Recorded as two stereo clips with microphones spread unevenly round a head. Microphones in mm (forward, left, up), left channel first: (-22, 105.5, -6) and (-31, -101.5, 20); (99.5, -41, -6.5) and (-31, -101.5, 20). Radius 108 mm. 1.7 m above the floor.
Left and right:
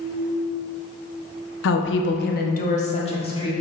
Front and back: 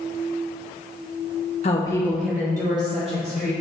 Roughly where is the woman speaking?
Left.